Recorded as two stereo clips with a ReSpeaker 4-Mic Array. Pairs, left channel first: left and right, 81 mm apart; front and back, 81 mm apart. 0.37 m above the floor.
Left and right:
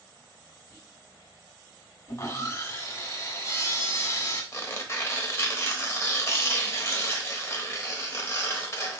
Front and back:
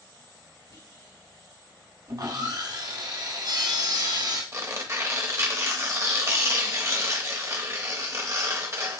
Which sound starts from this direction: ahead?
Whispering, at 0.7 s.